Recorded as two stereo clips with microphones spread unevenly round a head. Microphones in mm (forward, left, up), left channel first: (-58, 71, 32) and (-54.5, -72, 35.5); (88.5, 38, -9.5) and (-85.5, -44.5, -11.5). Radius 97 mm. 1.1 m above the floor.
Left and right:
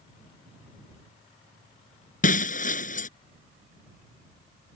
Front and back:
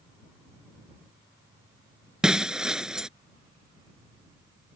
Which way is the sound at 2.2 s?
120° left.